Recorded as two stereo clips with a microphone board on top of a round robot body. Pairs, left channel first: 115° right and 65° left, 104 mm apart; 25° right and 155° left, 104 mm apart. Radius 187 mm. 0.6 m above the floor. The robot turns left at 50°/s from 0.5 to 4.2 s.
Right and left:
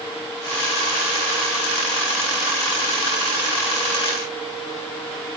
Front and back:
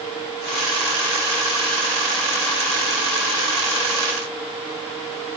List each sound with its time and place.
Only background noise.